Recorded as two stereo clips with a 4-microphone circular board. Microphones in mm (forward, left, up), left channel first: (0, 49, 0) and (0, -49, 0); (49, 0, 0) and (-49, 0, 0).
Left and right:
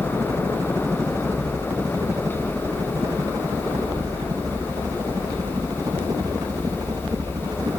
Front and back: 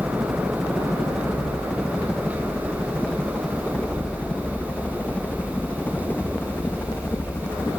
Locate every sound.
0.0 s a helicopter: 95° right; by 7.8 s 60° right